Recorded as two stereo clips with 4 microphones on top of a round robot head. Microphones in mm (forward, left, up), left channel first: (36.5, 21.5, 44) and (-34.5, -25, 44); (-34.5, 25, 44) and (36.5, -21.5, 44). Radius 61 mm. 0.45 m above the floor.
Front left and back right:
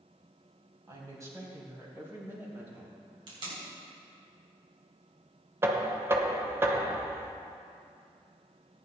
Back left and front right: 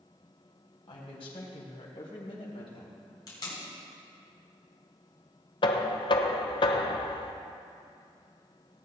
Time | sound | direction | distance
0.9 | a woman speaking | 160° left | 4 m
3.3 | tape being pulled | 175° right | 4.5 m
5.6 | knocking | 155° left | 1.0 m